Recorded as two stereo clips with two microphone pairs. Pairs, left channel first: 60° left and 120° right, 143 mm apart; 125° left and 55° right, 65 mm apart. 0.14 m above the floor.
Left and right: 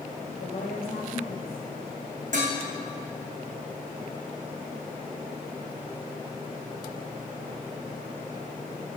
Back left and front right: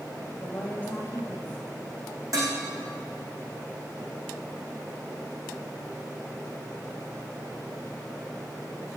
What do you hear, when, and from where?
0.3 s a woman speaking: 60° left, 6 m
2.3 s dishes clattering: 90° right, 5.5 m